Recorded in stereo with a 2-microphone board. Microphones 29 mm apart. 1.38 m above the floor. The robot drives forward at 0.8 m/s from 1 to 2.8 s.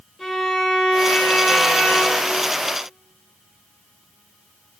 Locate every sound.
0.2 s a violin: 5° left (ahead or behind), 4.5 m